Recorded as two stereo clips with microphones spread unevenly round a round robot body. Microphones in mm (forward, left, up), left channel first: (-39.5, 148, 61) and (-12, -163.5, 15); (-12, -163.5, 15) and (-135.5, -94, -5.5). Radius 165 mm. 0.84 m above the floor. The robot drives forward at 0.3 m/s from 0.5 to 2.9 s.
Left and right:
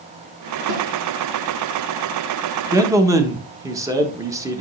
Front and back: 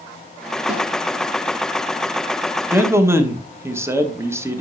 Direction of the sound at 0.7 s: 125° right.